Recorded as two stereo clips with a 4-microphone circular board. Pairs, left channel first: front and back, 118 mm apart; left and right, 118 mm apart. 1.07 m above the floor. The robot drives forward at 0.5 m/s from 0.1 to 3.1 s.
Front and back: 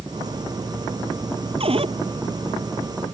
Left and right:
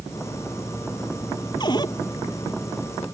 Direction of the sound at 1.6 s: 140° left.